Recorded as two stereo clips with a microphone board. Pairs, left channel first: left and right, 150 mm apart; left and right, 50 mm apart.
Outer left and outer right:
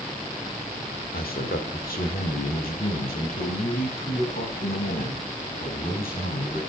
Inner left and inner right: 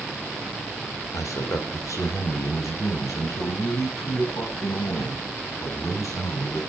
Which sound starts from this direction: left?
A man speaking, at 1.1 s.